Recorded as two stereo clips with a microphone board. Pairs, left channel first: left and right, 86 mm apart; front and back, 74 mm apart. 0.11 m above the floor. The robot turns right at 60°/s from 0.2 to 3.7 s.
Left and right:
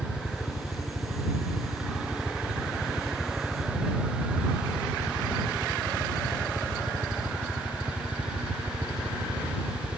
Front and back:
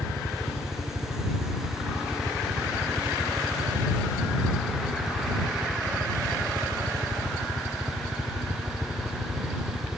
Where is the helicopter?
35° left; by 10.0 s 115° right.